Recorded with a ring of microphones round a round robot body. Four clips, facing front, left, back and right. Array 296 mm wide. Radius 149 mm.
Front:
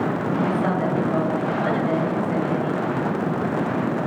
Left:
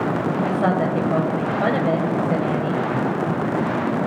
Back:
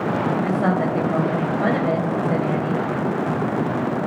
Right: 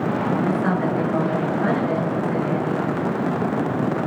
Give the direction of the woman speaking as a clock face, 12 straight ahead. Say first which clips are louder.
Left 1 dB, back 1 dB; 8 o'clock.